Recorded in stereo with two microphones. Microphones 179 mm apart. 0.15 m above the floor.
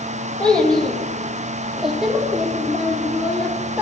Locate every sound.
0.4 s a child speaking: 5° left (ahead or behind), 3 m; by 3.8 s 10° right (ahead or behind), 5 m